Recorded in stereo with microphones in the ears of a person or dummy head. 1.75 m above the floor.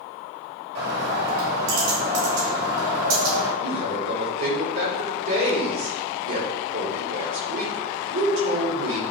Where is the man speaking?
50° right (ahead or behind), 4.5 m.